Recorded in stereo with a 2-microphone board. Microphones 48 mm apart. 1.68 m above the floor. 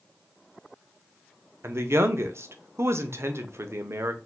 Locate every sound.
1.6 s a man speaking: 65° right (ahead or behind), 0.7 m